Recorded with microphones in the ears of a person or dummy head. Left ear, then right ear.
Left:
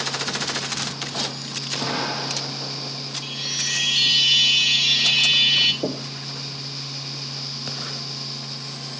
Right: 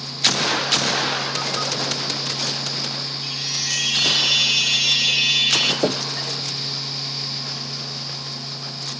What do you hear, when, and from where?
3.2 s a chime: 5° left (ahead or behind), 0.8 m
5.8 s knocking: 60° right (ahead or behind), 0.9 m